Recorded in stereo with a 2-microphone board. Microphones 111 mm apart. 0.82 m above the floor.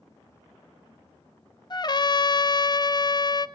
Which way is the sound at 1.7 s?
40° left (ahead or behind).